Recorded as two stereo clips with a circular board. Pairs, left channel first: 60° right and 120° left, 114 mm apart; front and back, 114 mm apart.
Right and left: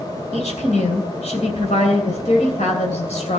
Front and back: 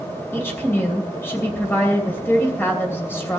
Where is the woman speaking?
70° right, 2.5 m.